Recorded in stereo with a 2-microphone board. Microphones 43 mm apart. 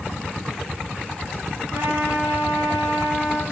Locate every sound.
1.7 s a trumpet: 80° right, 8 m